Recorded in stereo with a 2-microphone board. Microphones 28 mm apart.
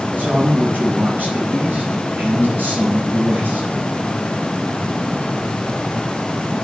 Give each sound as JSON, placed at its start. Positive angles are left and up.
{"t": 0.2, "sound": "a man speaking", "side_deg": -70, "distance_m": 9.5}